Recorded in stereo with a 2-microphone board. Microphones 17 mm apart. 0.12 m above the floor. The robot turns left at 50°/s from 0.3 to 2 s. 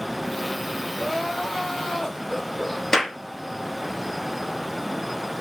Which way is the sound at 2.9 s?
30° left (ahead or behind).